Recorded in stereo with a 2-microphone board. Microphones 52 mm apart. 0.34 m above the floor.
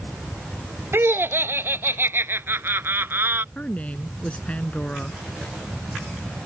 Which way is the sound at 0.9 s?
50° right (ahead or behind).